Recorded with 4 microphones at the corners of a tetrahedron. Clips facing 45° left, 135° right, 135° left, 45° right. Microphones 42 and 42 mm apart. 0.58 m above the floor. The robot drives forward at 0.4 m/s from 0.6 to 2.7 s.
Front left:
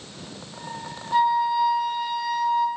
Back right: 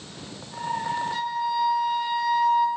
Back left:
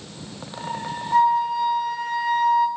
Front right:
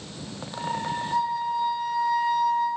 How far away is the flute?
About 0.8 m.